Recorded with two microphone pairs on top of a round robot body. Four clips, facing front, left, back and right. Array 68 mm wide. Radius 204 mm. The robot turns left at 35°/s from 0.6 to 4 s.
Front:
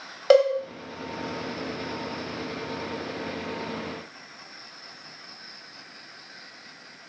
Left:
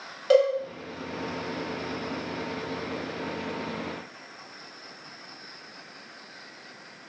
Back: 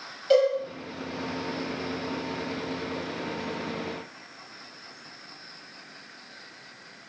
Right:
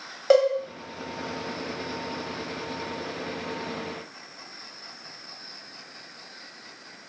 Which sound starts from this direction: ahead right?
A cowbell, at 0.3 s.